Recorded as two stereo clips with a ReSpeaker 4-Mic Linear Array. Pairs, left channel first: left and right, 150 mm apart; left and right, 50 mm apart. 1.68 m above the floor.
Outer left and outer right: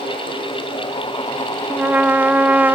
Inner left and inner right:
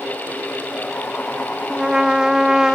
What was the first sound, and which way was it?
A trumpet, 10° right (ahead or behind).